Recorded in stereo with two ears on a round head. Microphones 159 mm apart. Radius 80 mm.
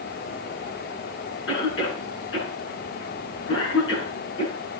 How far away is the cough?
About 9 m.